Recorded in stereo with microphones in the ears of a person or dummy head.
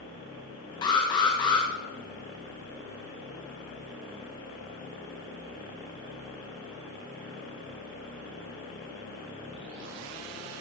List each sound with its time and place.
0.8 s an alarm: 20° left (ahead or behind), 1.2 m